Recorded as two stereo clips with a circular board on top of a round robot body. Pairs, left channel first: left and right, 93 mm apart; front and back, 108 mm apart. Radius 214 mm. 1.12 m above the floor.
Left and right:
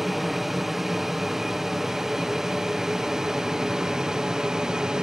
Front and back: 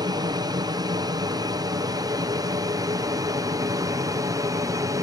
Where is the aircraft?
175° right; by 5.0 s 165° right.